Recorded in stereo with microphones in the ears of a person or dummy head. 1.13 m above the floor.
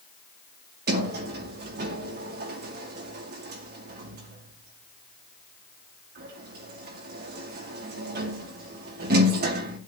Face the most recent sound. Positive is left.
turn(degrees=-50)  # may be behind; listen again after turning